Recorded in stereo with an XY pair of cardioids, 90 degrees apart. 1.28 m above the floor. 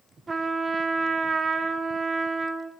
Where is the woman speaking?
No woman speaking in this recording.